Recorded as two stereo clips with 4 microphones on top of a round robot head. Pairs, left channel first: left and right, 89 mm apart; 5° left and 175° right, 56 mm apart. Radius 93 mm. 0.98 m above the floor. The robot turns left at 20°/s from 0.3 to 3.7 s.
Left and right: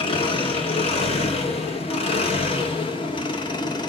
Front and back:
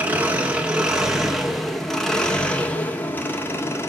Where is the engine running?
120° left, 1.9 m; by 3.9 s 50° left, 1.9 m.